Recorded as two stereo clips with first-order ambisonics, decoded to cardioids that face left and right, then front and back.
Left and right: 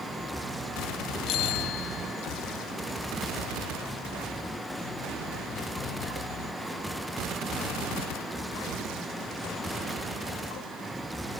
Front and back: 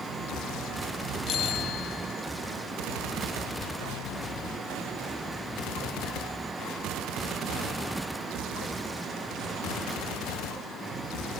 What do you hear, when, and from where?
1.3 s a bicycle bell: 50° left